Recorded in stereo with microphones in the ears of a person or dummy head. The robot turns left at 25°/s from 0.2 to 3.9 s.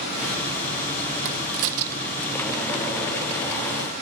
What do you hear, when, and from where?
1.2 s a crack: 60° right (ahead or behind), 0.6 m; by 2.5 s 85° right, 0.6 m